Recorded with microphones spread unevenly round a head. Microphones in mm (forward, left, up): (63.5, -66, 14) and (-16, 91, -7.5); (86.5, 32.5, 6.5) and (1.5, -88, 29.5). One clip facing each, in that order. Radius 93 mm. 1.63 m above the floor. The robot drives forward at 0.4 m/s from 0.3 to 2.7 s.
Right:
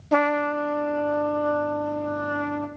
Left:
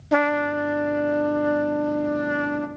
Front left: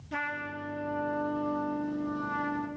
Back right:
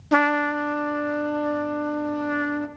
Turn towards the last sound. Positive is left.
turn(degrees=-170)